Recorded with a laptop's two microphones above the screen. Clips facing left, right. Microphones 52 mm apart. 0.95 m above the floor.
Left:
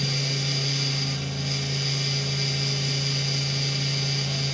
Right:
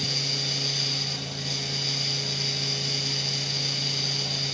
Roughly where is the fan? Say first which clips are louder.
Left 3 dB; left.